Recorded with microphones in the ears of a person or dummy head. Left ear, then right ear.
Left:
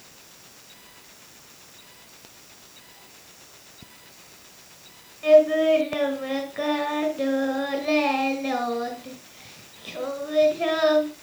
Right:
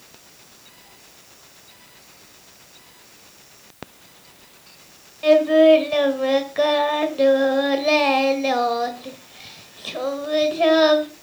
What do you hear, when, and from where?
5.2 s singing: 20° right (ahead or behind), 1.4 m